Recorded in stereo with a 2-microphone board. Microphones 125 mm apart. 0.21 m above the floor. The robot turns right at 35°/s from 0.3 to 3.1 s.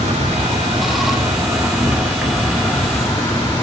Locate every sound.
0.0 s an insect: 70° right, 1.5 m; by 3.6 s 30° left, 1.5 m